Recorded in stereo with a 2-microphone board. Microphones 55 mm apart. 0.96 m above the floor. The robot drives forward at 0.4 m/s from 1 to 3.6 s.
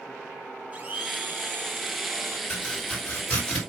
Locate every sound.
0.7 s a blender: 30° right (ahead or behind), 1.1 m; by 2.4 s 50° right (ahead or behind), 0.8 m
2.5 s chopping: 25° left (ahead or behind), 3.5 m; by 3.6 s 20° left (ahead or behind), 4 m